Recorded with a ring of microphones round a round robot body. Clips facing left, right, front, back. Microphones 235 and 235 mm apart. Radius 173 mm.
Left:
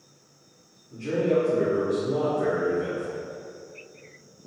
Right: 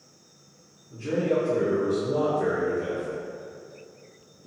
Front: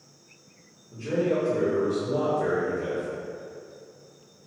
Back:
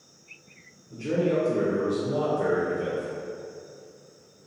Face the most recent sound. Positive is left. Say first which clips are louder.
# left 2 dB, back 1 dB
turn(degrees=-155)